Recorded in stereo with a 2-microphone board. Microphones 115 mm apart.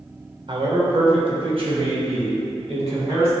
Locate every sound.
0.5 s a man speaking: 50° right (ahead or behind), 1.6 m; by 3.3 s 60° right (ahead or behind), 4 m